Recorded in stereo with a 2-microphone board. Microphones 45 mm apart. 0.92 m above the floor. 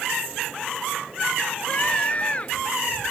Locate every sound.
1.7 s a scream: 30° left (ahead or behind)